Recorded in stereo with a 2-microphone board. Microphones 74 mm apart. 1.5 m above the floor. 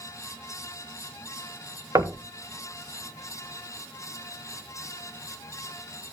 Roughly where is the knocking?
Right.